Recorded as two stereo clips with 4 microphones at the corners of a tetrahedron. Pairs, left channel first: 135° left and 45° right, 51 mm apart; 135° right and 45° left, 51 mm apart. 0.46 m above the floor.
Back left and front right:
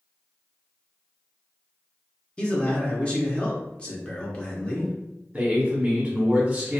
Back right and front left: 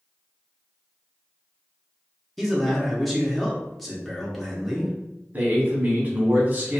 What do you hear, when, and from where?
2.4 s a man speaking: 140° left, 0.7 m
5.3 s a man speaking: 15° left, 0.9 m